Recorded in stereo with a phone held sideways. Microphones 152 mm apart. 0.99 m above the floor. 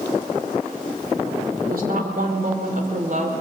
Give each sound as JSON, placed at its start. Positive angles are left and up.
{"t": 1.7, "sound": "a woman speaking", "side_deg": -75, "distance_m": 3.0}